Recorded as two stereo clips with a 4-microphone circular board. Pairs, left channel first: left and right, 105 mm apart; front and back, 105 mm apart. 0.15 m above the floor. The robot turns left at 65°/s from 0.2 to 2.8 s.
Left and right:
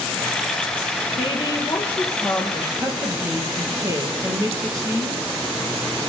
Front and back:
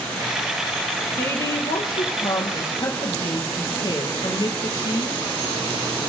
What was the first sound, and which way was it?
A woman speaking, 65° left.